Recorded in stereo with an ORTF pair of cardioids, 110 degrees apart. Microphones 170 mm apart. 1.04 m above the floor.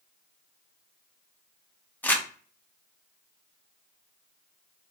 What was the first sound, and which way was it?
Crumpling, 10° left.